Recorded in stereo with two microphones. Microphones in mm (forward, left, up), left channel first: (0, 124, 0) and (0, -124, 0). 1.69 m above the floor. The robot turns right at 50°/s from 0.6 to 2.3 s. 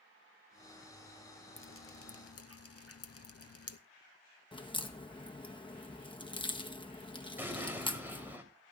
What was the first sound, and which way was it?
Dripping, 50° left (ahead or behind).